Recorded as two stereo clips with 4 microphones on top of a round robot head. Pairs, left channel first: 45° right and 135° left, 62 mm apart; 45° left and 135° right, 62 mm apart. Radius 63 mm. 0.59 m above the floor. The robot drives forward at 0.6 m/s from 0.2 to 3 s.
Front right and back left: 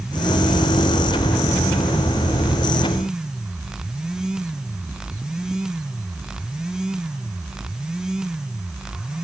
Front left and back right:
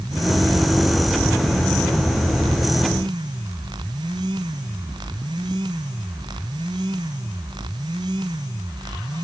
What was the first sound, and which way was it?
Only background noise.